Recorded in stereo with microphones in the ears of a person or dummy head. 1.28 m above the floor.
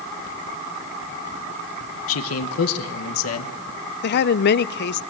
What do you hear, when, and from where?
2.1 s a man speaking: 85° left, 1.1 m
4.0 s a woman speaking: 60° left (ahead or behind), 0.6 m